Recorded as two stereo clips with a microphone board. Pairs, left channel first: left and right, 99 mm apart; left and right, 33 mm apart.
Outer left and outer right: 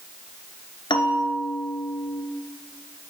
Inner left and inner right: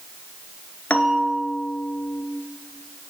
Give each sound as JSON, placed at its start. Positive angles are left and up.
{"t": 0.9, "sound": "a bell", "side_deg": 60, "distance_m": 0.8}